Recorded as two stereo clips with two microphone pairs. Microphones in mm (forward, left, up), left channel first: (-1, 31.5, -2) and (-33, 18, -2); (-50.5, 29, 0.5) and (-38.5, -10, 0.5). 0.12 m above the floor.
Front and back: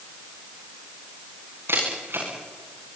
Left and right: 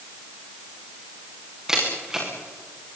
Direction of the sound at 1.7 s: 155° right.